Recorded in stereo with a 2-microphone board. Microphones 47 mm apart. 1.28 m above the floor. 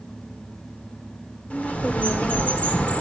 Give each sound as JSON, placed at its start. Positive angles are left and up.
{"t": 1.5, "sound": "a bird", "side_deg": 30, "distance_m": 1.2}